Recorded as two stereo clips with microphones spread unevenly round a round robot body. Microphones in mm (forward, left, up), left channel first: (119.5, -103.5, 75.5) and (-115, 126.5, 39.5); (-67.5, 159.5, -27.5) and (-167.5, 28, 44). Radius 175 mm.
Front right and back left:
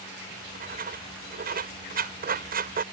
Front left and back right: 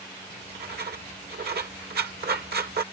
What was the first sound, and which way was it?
Writing, 165° right.